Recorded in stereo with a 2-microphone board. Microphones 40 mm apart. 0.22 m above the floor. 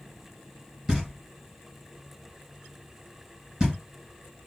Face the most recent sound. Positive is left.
turn(degrees=-25)  # may be behind; listen again after turning